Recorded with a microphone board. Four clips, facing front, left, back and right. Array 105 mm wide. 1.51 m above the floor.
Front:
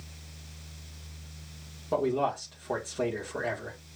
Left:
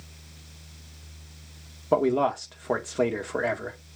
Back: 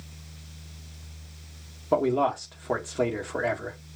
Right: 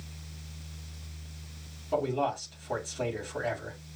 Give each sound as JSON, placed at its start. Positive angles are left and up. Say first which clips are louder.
{"t": 1.9, "sound": "a man speaking", "louder": "left 7 dB, back 4 dB", "azimuth_deg": 110, "distance_m": 1.8}